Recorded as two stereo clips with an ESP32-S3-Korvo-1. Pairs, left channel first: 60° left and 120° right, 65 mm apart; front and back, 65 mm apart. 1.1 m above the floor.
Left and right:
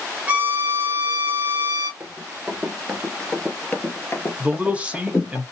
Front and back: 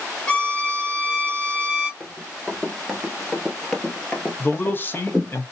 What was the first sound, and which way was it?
A violin, 70° right.